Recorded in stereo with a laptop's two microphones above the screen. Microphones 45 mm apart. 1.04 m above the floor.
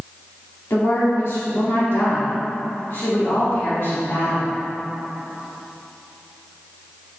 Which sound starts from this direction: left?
A woman speaking, at 0.7 s.